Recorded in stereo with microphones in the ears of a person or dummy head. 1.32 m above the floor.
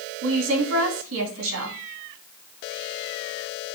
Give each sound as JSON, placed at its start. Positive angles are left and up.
{"t": 0.2, "sound": "a woman speaking", "side_deg": -70, "distance_m": 2.5}